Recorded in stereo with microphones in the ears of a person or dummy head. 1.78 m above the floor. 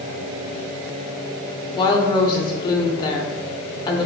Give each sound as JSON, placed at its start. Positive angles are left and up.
{"t": 1.8, "sound": "a woman speaking", "side_deg": 25, "distance_m": 0.6}